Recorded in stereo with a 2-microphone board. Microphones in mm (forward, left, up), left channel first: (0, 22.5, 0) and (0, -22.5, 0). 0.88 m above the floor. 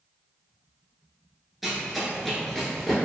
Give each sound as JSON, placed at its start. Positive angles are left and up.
{"t": 1.6, "sound": "running footsteps", "side_deg": -5, "distance_m": 0.8}